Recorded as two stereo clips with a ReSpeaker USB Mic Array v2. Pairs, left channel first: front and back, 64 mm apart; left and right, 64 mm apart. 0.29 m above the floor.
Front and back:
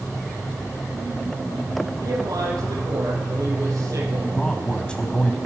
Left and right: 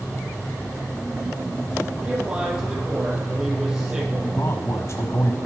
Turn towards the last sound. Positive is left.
turn(degrees=70)